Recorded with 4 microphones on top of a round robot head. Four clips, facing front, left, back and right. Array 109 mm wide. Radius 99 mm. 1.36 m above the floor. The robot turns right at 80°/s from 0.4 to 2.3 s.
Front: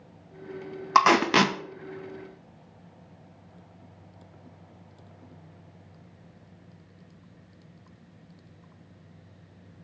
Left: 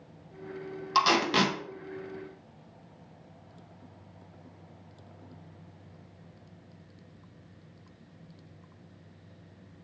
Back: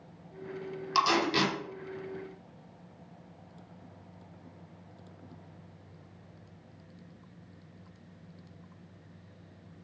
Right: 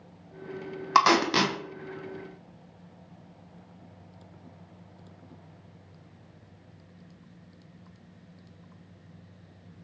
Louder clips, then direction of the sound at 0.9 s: Right 3 dB, front 7 dB; 40° right.